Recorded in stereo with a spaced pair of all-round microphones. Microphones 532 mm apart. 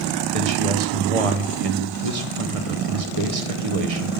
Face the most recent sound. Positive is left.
turn(degrees=-75)  # may be behind; listen again after turning